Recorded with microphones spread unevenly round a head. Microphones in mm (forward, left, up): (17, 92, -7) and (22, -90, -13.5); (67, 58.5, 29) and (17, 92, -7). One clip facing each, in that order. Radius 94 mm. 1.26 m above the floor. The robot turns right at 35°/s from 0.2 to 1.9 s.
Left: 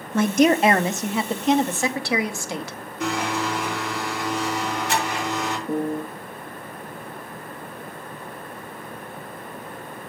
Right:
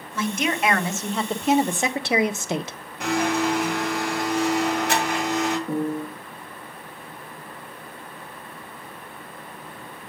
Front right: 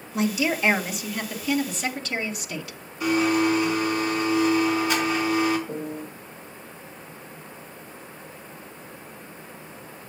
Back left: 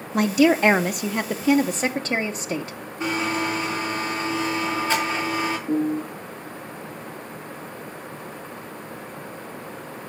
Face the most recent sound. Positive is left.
turn(degrees=-150)